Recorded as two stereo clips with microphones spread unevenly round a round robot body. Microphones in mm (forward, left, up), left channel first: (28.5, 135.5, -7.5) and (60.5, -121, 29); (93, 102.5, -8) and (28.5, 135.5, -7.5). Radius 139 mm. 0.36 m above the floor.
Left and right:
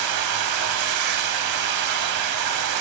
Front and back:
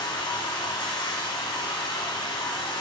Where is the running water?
70° right, 0.9 m.